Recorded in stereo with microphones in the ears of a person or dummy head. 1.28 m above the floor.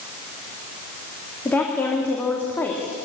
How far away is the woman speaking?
About 2 m.